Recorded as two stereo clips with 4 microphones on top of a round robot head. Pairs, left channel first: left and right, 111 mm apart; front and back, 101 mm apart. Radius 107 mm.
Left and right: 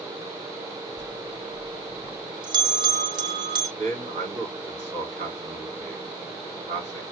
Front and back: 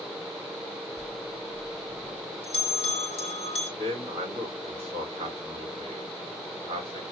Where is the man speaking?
130° right, 5 m.